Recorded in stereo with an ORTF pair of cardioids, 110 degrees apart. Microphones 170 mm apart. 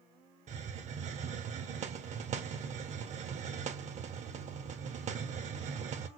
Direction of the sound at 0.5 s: 45° right.